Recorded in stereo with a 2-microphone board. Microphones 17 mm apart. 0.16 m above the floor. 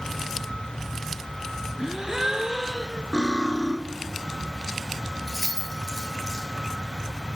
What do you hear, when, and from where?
1.8 s a gasp: 25° right (ahead or behind), 0.6 m
3.1 s cutlery clinking: 25° left (ahead or behind), 3.5 m
5.3 s keys jangling: 5° left (ahead or behind), 5 m